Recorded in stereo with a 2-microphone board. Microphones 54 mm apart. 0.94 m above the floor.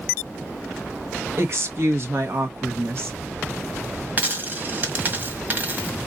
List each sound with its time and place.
1.4 s a woman speaking: 50° right (ahead or behind), 1.3 m
4.2 s a dropped coin: 35° right (ahead or behind), 1.4 m